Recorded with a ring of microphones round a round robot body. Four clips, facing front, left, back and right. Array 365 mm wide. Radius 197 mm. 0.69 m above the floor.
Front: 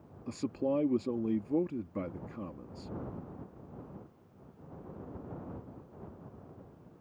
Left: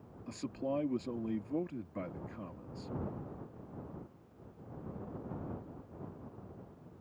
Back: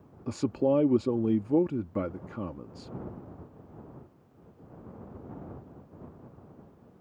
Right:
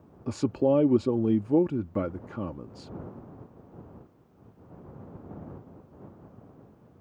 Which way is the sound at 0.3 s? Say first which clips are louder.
Right 14 dB, back 7 dB; 120° right.